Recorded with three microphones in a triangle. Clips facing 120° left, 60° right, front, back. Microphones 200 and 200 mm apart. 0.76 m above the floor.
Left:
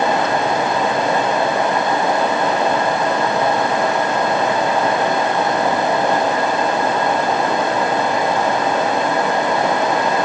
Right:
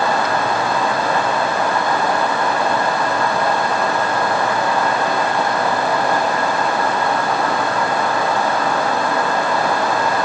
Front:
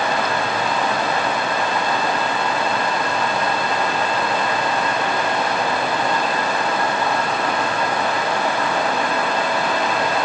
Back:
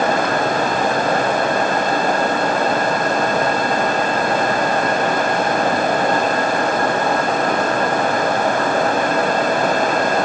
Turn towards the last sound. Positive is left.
No sound to turn to.